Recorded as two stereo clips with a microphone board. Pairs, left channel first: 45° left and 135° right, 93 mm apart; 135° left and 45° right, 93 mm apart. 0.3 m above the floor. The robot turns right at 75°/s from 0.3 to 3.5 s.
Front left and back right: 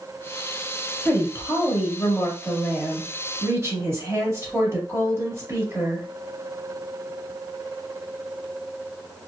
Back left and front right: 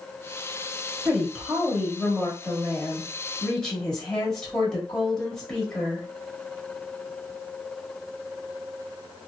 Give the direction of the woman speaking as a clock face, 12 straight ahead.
11 o'clock.